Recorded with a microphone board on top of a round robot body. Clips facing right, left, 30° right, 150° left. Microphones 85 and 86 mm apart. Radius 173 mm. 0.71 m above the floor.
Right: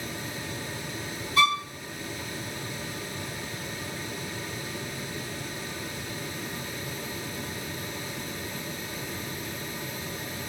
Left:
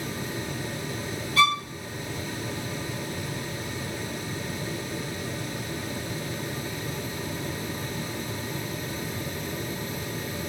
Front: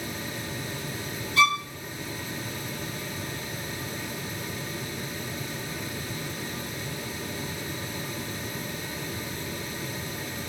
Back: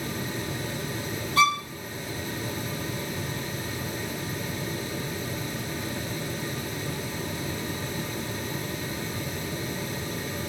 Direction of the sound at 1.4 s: 165° right.